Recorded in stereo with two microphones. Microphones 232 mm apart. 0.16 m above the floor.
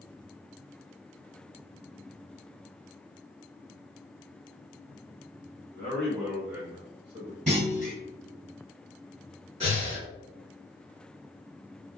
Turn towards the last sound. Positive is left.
turn(degrees=-25)  # may be behind; listen again after turning